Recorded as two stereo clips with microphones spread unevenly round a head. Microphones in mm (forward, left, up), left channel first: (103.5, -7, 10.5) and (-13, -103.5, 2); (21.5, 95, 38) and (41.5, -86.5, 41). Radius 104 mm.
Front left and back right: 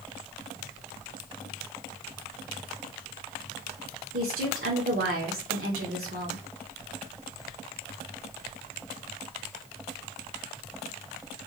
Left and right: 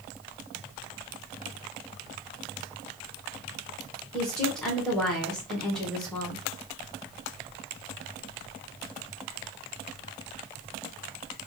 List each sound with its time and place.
4.1 s a woman speaking: 175° right, 1.2 m